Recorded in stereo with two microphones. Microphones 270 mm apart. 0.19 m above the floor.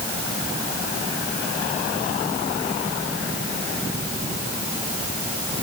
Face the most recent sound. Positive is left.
No sound to turn to.